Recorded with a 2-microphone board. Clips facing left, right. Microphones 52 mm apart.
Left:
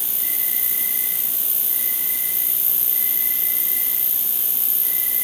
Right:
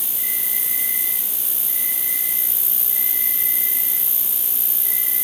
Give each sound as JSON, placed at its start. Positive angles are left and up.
{"t": 0.0, "sound": "an insect", "side_deg": -75, "distance_m": 2.5}